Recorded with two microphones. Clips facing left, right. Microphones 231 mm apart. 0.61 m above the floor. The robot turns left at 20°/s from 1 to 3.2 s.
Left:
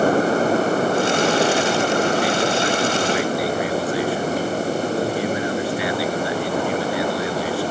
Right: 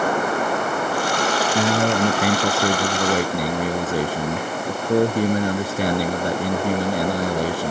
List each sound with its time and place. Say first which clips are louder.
1.6 s a man speaking: even; 100° right; by 7.7 s 135° right